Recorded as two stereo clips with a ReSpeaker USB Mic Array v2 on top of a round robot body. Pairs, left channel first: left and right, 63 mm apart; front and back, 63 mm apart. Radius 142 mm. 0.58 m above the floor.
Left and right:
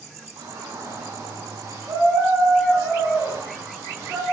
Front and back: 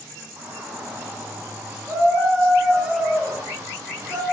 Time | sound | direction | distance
0.4 | a shout | 125° right | 9 m